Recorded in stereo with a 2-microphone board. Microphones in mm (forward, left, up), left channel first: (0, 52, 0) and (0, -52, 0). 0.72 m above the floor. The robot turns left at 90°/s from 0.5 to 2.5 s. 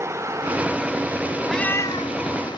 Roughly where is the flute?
No flute in this recording.